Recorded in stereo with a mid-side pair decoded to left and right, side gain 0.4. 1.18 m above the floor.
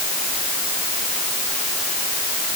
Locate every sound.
Only background noise.